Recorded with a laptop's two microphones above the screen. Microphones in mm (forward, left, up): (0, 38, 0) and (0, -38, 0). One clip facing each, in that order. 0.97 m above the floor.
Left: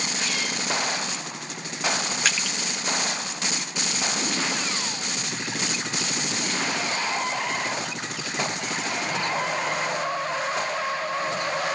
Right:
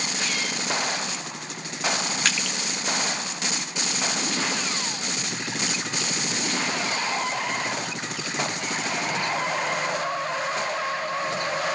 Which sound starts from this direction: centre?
Crushing, at 2.2 s.